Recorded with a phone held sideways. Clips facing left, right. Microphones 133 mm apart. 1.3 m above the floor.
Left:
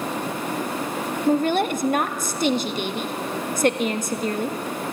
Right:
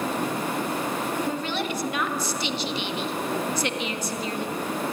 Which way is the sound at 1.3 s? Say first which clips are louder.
Left 8 dB; 50° left (ahead or behind).